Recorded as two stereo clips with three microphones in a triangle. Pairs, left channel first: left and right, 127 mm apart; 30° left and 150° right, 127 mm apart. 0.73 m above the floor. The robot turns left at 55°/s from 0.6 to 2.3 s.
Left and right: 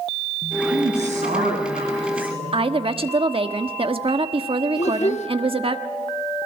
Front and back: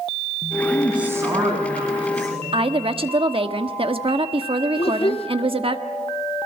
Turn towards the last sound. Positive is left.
turn(degrees=70)